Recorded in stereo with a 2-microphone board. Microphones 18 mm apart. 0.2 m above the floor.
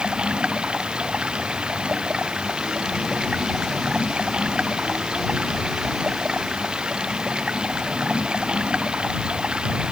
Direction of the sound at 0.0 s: 85° right.